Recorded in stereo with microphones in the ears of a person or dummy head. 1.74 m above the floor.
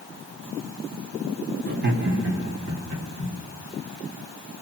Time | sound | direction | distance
1.7 | laughter | 45° right (ahead or behind) | 0.6 m